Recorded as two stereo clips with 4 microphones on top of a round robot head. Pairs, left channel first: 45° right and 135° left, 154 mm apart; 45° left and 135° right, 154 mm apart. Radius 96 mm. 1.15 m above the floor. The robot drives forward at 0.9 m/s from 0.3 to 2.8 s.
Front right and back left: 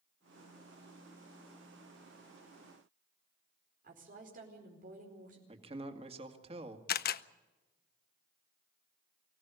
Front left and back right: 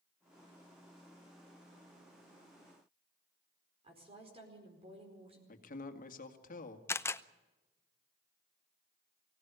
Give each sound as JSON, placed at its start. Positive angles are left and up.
{"t": 3.8, "sound": "a woman speaking", "azimuth_deg": 170, "distance_m": 4.5}
{"t": 5.5, "sound": "a man speaking", "azimuth_deg": 80, "distance_m": 2.0}
{"t": 6.9, "sound": "a camera shutter", "azimuth_deg": -30, "distance_m": 0.8}